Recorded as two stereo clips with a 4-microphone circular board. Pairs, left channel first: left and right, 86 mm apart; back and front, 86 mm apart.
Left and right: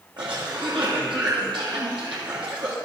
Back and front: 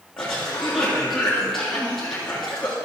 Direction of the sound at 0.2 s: 95° right.